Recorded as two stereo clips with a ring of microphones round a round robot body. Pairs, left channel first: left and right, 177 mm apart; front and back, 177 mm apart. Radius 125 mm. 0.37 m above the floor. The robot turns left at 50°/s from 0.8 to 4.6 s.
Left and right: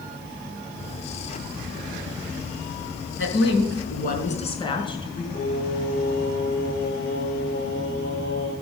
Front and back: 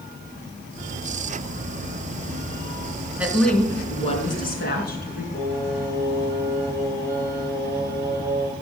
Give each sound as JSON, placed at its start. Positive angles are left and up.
{"t": 3.2, "sound": "a woman speaking", "azimuth_deg": 100, "distance_m": 5.0}
{"t": 5.3, "sound": "singing", "azimuth_deg": 70, "distance_m": 5.5}